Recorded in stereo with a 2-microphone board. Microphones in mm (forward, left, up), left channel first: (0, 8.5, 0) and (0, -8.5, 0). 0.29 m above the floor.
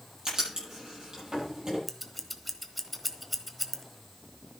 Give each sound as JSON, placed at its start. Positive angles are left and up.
{"t": 0.2, "sound": "writing", "side_deg": -40, "distance_m": 9.5}
{"t": 1.9, "sound": "scissors", "side_deg": 0, "distance_m": 1.2}